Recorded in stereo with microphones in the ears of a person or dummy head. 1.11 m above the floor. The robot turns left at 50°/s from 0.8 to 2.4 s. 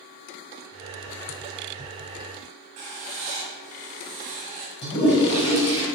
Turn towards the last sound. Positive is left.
turn(degrees=30)  # may be behind; listen again after turning